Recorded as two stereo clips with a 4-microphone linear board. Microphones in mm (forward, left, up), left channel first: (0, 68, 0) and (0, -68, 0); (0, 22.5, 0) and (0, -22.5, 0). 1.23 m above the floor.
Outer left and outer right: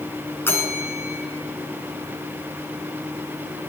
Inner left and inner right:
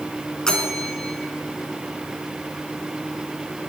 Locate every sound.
0.5 s a bell: 15° left (ahead or behind), 3 m